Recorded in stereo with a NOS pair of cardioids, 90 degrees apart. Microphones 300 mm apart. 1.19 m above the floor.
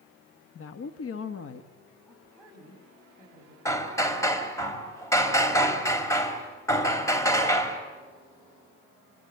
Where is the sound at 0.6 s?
50° left, 1.4 m.